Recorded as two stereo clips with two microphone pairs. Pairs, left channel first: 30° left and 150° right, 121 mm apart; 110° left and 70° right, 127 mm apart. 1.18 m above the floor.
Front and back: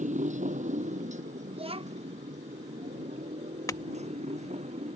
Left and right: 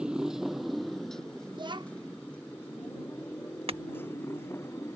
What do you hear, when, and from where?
0.0 s a motorcycle: 150° right; by 5.0 s straight behind
1.5 s a child speaking: 120° right
3.7 s a clink: 30° right